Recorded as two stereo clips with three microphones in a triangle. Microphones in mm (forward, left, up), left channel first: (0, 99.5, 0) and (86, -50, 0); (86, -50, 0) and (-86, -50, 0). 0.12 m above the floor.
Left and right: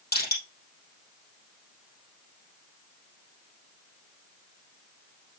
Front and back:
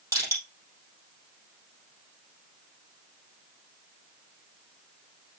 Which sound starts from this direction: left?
Crushing, at 0.1 s.